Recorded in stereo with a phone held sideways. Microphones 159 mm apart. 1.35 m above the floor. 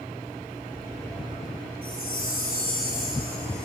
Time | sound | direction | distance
1.8 | a chime | 70° right (ahead or behind) | 3 m